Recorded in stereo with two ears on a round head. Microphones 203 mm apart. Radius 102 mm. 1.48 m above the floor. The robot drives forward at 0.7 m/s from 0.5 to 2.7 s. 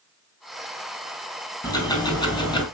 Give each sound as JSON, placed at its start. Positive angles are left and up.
{"t": 1.6, "sound": "ticking", "side_deg": 20, "distance_m": 3.5}